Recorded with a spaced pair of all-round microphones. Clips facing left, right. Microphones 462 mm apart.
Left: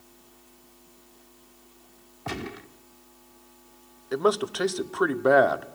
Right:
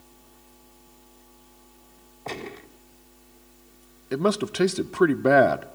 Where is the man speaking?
45° right (ahead or behind), 0.5 m.